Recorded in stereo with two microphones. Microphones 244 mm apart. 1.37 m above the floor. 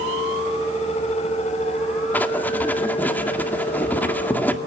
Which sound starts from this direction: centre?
Writing, at 2.1 s.